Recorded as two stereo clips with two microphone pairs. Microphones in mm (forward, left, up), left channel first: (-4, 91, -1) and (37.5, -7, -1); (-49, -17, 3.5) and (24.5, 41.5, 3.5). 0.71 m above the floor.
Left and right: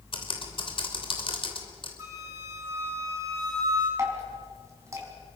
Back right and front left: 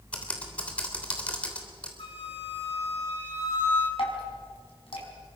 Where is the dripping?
130° right, 5 m.